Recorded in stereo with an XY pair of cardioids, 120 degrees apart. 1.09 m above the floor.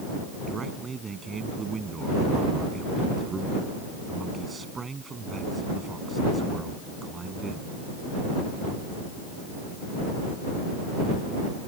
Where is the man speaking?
30° right.